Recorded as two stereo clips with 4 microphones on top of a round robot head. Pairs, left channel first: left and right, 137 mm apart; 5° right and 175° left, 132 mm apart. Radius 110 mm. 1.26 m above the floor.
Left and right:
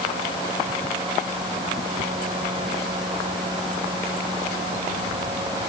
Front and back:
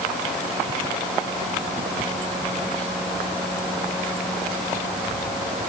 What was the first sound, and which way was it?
Only background noise.